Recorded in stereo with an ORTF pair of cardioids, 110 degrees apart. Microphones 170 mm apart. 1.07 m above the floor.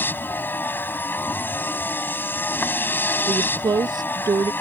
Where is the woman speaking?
25° right.